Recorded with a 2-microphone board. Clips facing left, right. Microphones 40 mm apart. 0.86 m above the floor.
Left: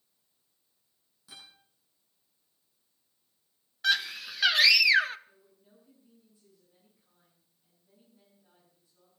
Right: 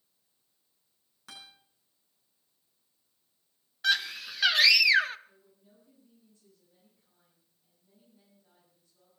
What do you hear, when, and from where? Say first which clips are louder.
1.3 s a guitar: right 2 dB; 65° right (ahead or behind), 9.5 m
3.8 s a scream: even; centre (ahead or behind), 0.7 m
5.3 s a woman speaking: even; 5° left (ahead or behind), 8.5 m